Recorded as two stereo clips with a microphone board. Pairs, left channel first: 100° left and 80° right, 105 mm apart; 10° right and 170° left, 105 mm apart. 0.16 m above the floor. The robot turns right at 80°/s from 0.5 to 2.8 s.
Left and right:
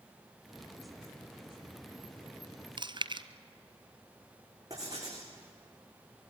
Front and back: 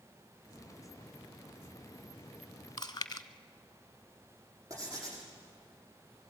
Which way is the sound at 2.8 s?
65° right.